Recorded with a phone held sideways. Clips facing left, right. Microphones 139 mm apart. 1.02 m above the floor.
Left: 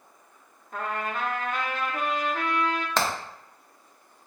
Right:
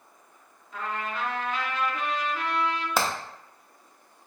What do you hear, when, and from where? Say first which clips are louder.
0.7 s a trumpet: left 2 dB; 50° left (ahead or behind), 0.5 m
3.0 s hammering: even; 10° right (ahead or behind), 0.6 m